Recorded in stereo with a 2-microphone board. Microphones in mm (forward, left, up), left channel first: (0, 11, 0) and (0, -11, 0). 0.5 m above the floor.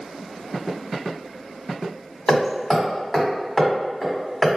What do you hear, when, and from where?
2.3 s hammering: 15° left (ahead or behind), 1.2 m